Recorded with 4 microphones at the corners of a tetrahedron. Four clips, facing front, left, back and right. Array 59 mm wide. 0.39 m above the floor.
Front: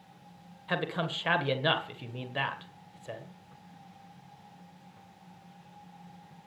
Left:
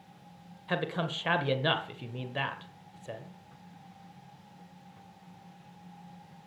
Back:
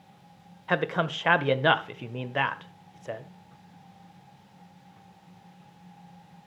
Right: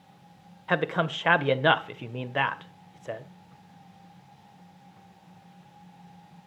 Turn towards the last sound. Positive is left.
turn(degrees=-130)